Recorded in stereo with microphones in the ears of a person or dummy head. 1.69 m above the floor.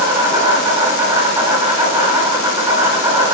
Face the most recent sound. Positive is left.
turn(degrees=-20)  # may be behind; listen again after turning